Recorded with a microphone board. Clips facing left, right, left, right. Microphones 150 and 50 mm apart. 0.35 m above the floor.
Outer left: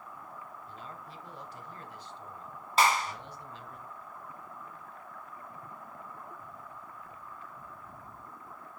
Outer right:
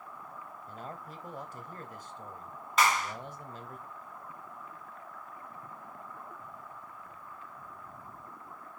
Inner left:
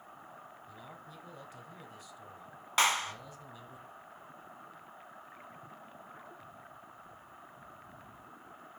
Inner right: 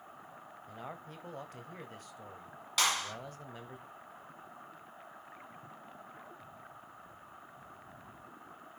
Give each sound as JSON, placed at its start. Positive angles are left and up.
{"t": 0.7, "sound": "a man speaking", "side_deg": -45, "distance_m": 1.4}
{"t": 2.8, "sound": "a clap", "side_deg": 30, "distance_m": 2.5}